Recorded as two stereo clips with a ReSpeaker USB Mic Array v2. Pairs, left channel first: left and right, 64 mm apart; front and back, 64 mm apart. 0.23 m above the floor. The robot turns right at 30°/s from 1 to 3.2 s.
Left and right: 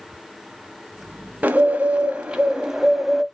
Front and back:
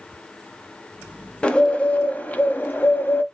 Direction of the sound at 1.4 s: 60° right.